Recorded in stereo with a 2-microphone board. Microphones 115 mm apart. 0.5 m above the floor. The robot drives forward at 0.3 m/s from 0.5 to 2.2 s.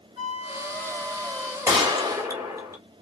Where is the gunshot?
30° right (ahead or behind), 1.3 m; by 2.8 s 25° right (ahead or behind), 1.3 m.